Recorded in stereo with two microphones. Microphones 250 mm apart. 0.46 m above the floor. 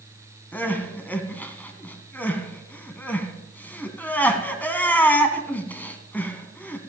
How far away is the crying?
About 2 m.